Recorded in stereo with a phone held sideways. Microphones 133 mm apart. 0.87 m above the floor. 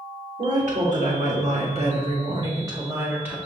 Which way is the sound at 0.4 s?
75° right (ahead or behind).